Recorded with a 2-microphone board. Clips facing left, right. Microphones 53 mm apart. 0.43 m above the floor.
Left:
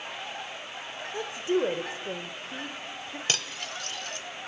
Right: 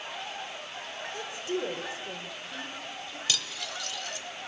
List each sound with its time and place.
1.1 s a woman speaking: 30° left (ahead or behind), 1.2 m
3.3 s cutlery clinking: 45° left (ahead or behind), 1.0 m